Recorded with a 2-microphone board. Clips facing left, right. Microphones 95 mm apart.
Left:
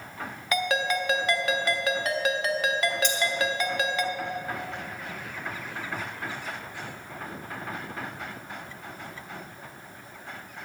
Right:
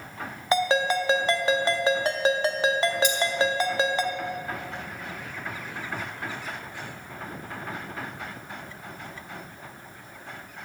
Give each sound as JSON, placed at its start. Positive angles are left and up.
{"t": 0.5, "sound": "a ringtone", "side_deg": -30, "distance_m": 0.6}
{"t": 3.0, "sound": "cutlery clinking", "side_deg": -10, "distance_m": 1.7}